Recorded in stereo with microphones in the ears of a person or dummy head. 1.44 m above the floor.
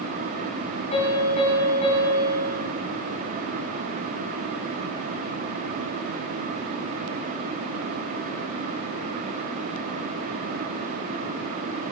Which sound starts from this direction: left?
A piano, at 0.9 s.